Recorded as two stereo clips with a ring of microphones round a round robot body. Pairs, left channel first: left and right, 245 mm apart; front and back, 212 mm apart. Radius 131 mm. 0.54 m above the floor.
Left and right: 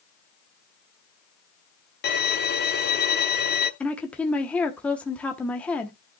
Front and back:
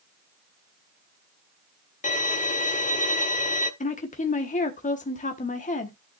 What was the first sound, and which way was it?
A violin, 50° left.